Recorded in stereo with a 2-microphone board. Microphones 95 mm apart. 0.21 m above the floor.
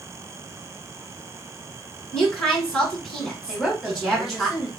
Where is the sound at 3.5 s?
5° right (ahead or behind), 1.1 m.